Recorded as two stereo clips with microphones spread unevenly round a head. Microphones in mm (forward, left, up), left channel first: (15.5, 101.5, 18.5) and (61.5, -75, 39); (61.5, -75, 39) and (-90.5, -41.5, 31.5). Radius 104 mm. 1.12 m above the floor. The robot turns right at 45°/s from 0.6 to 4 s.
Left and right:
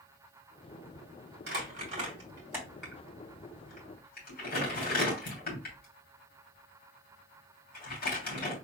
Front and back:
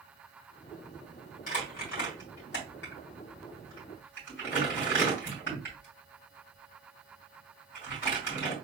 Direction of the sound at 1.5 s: 50° right.